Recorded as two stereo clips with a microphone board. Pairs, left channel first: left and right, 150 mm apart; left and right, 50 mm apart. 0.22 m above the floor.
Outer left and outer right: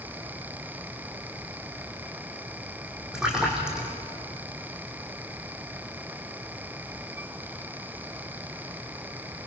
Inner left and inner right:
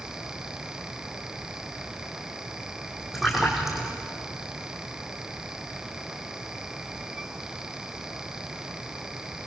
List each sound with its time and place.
3.1 s a splash: 5° right (ahead or behind), 4.5 m